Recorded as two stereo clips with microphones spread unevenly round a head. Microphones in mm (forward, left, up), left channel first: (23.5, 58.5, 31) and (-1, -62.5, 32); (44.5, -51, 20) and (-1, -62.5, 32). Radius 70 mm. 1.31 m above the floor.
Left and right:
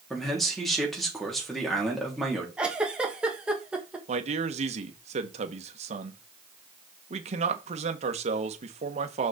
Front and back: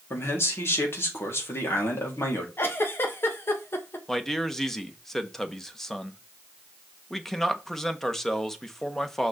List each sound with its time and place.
0.1 s a man speaking: 10° right, 3.5 m
2.6 s a giggle: 20° right, 1.5 m
4.1 s a man speaking: 65° right, 1.4 m